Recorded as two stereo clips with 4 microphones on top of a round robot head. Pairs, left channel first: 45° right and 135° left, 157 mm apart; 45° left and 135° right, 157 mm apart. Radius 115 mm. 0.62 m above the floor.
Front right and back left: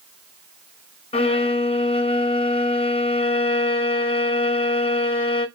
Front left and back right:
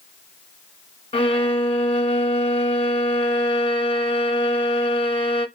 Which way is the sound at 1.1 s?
5° right.